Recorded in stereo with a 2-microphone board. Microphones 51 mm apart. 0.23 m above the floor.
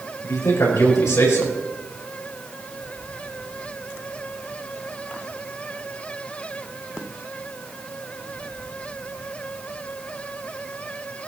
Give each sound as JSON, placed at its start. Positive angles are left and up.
{"t": 0.2, "sound": "a man speaking", "side_deg": 75, "distance_m": 5.5}